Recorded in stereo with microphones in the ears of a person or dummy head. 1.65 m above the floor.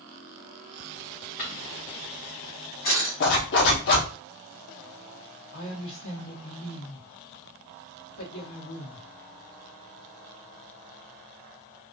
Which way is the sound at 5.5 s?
60° left (ahead or behind).